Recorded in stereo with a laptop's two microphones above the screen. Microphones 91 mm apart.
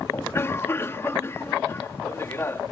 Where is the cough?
30° left (ahead or behind).